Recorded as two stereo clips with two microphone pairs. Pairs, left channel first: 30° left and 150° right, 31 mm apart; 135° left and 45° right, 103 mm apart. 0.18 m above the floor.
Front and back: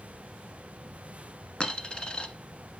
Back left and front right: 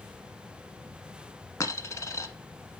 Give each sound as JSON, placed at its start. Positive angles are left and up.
{"t": 1.6, "sound": "a dropped coin", "azimuth_deg": 85, "distance_m": 1.0}